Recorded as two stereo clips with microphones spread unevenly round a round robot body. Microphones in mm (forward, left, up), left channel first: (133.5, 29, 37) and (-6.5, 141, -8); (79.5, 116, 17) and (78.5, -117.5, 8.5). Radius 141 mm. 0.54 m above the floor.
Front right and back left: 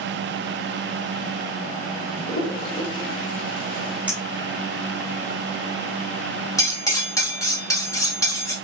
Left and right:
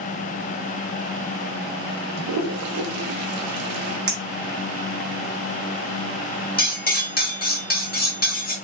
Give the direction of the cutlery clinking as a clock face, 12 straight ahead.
11 o'clock.